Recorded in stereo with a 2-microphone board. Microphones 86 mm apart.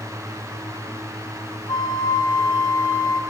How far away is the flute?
About 2.5 m.